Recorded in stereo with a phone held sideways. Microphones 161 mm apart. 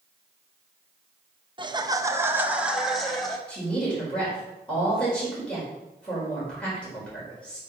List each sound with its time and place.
1.6 s laughter: 30° right (ahead or behind), 0.8 m; by 3.4 s centre (ahead or behind), 1.3 m
3.5 s a woman speaking: 5° left (ahead or behind), 4.5 m